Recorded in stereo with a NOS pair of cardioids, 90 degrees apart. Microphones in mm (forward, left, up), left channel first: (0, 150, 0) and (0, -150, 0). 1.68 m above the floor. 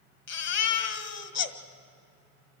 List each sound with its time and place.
0.3 s a baby crying: 60° left, 1.8 m